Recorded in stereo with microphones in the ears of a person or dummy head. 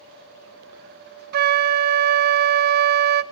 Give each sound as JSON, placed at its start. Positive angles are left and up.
{"t": 1.3, "sound": "a flute", "side_deg": -55, "distance_m": 0.5}